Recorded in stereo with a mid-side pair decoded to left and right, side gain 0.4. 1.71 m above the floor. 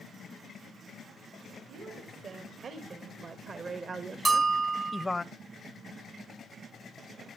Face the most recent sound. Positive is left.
turn(degrees=-45)